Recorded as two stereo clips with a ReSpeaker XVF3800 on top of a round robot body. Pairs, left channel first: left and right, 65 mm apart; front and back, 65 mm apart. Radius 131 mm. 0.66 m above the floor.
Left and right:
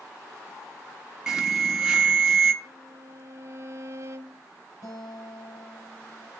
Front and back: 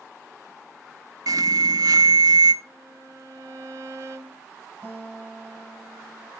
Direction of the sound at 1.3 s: 170° right.